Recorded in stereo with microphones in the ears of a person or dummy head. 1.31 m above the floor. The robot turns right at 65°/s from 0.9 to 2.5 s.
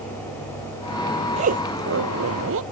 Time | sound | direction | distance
1.4 | a zipper | 145° right | ?